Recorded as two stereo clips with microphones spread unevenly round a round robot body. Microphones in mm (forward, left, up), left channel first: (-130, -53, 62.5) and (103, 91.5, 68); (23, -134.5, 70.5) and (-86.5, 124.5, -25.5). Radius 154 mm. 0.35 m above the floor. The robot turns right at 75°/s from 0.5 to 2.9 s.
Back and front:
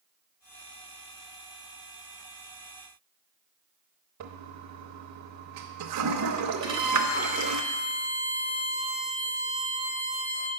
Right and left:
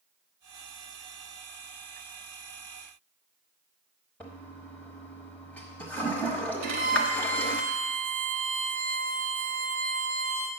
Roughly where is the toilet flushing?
Ahead left.